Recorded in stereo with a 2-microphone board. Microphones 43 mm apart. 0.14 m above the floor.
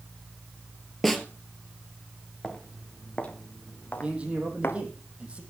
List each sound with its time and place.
1.0 s a snare drum: 5° left (ahead or behind), 1.7 m
2.4 s footsteps: 20° left (ahead or behind), 3.5 m; by 4.8 s 55° left (ahead or behind), 1.9 m
4.0 s a man speaking: 30° right (ahead or behind), 4 m